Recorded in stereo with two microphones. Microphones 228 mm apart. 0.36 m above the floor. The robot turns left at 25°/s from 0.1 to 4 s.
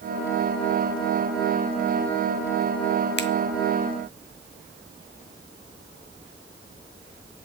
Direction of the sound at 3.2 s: 50° left (ahead or behind).